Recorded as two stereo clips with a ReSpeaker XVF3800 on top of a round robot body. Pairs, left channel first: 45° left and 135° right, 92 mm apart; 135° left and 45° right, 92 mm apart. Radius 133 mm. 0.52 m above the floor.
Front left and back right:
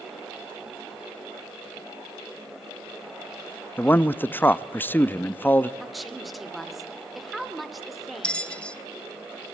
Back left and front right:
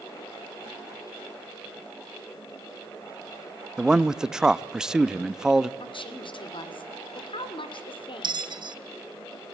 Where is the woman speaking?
135° left, 2 m.